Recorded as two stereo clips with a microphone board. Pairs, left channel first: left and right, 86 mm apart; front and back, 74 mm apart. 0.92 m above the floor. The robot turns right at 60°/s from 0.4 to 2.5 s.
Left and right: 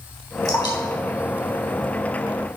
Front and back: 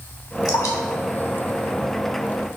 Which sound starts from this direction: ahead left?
Dripping, at 0.5 s.